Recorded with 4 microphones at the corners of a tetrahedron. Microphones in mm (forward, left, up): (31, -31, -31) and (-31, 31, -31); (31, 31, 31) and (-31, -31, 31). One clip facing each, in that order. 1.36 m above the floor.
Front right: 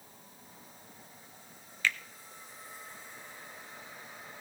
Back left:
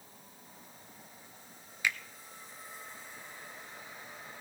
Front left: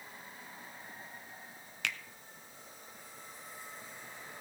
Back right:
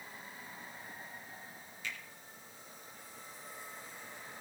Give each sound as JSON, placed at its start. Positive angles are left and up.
{"t": 1.8, "sound": "a finger snap", "azimuth_deg": 60, "distance_m": 0.6}